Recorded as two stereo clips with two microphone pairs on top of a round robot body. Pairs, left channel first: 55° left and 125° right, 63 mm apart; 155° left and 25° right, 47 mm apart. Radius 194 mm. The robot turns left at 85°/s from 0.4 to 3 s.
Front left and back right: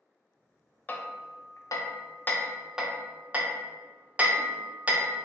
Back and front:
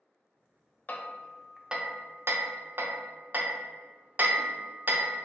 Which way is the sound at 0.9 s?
115° left.